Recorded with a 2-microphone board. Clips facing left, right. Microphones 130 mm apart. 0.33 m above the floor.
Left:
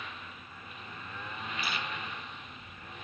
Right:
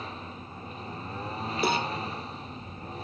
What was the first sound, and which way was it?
A lawn mower, 35° right (ahead or behind).